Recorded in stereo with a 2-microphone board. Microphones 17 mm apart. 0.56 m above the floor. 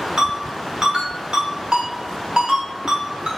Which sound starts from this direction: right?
A ringtone, at 0.2 s.